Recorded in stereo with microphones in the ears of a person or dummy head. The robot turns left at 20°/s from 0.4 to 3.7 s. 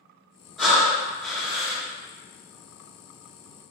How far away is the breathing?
About 1.3 m.